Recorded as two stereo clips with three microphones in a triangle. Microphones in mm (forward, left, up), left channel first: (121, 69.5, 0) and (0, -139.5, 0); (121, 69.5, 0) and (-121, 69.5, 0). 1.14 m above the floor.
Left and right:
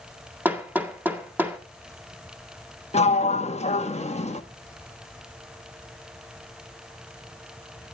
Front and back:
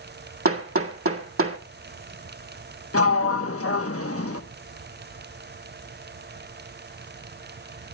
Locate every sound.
0.5 s hammering: 160° left, 1.8 m
2.9 s a sliding door: 5° right, 1.1 m